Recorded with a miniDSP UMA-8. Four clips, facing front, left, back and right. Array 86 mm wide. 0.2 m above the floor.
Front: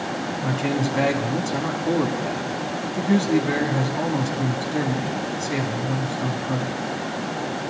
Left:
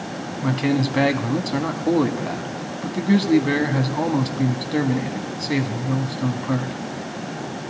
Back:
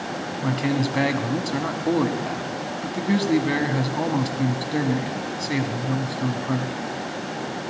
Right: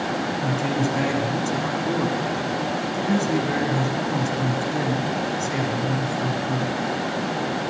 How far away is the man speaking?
About 1.2 m.